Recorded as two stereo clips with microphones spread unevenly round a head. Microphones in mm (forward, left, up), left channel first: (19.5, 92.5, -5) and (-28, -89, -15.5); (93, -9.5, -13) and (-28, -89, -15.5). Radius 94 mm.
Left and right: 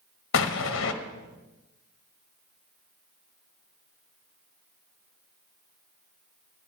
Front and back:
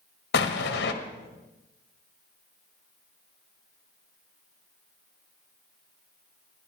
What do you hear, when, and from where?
0.3 s an explosion: 50° left, 1.2 m